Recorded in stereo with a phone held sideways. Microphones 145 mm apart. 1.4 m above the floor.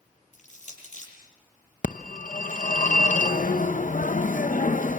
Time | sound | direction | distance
0.3 | crushing | 55° left (ahead or behind) | 9 m
1.8 | a phone ringing | 65° left (ahead or behind) | 0.9 m